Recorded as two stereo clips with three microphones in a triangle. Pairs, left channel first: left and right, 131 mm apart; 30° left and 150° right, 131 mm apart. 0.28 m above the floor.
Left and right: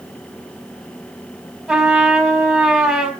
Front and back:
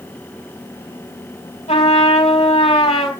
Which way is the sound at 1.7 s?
5° right.